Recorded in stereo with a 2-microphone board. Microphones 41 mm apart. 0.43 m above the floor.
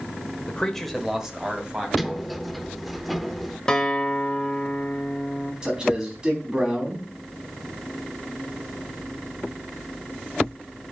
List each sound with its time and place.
0.5 s a man speaking: 25° left (ahead or behind), 1.1 m; by 1.9 s 25° right (ahead or behind), 2 m
2.0 s a sliding door: centre (ahead or behind), 0.6 m
3.7 s a guitar: 15° left (ahead or behind), 0.9 m
5.6 s a man speaking: 20° right (ahead or behind), 4 m